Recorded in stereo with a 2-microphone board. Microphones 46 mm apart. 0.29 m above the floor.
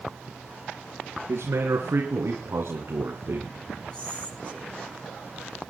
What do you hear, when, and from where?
1.3 s a man speaking: 70° right (ahead or behind), 3 m; by 3.5 s 50° right (ahead or behind), 3 m
3.9 s whispering: 20° left (ahead or behind), 5 m